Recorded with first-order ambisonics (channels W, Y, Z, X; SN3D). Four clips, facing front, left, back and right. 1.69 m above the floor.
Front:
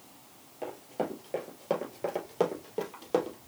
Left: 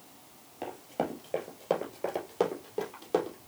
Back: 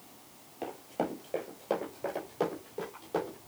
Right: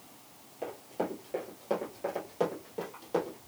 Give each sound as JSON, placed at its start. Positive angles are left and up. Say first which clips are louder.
{"t": 0.6, "sound": "running footsteps", "louder": "left 1 dB, even", "azimuth_deg": 120, "distance_m": 1.8}